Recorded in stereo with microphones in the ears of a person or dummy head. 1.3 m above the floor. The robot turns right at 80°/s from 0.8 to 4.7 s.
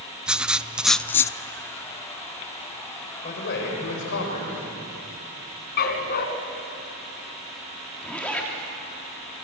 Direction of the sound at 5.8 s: 55° left (ahead or behind).